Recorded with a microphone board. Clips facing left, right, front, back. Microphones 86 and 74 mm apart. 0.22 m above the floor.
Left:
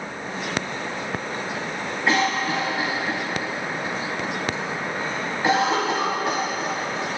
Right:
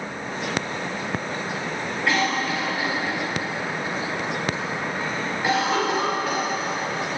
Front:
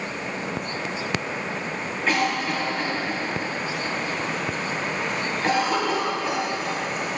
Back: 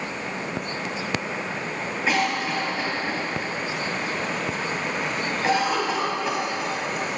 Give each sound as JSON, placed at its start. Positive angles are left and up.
{"t": 2.1, "sound": "a cough", "azimuth_deg": 110, "distance_m": 1.0}